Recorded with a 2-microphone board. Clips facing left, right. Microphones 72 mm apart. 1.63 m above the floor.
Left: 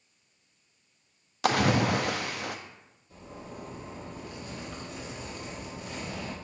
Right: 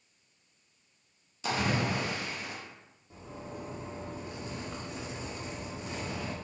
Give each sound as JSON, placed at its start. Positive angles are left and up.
{"t": 1.4, "sound": "a splash", "side_deg": 75, "distance_m": 0.6}
{"t": 3.1, "sound": "a zipper", "side_deg": -25, "distance_m": 1.8}